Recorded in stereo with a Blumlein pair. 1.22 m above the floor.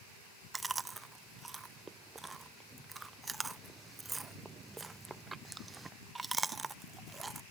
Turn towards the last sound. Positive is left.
turn(degrees=-10)